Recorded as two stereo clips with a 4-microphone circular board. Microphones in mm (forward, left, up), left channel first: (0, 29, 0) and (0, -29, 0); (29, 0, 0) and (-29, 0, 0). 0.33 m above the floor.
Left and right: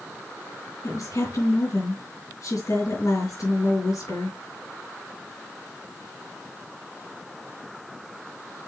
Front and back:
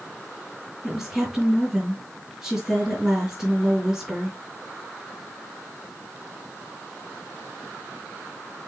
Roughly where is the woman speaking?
Left.